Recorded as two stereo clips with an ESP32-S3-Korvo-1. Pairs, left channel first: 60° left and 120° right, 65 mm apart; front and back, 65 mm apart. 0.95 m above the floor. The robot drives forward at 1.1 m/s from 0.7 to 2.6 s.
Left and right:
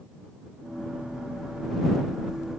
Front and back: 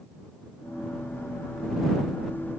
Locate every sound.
Only background noise.